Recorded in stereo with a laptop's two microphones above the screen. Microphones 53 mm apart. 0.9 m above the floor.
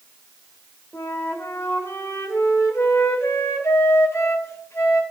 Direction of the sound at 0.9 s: 60° left (ahead or behind).